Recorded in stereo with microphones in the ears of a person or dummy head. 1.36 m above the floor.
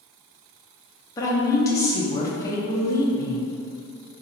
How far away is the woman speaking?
About 0.6 m.